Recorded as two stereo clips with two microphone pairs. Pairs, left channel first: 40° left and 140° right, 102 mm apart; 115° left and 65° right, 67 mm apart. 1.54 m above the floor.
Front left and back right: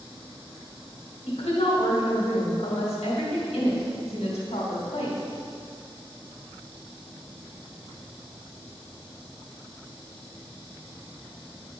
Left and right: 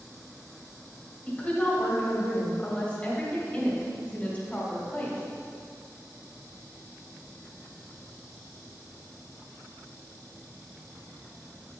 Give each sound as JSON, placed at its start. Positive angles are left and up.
{"t": 1.2, "sound": "a woman speaking", "azimuth_deg": 45, "distance_m": 2.0}